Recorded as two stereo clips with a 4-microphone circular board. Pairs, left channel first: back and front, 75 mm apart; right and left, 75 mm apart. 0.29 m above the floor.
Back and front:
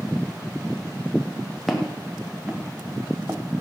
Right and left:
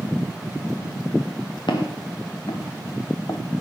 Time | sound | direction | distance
1.7 | footsteps | 90° right | 2.5 m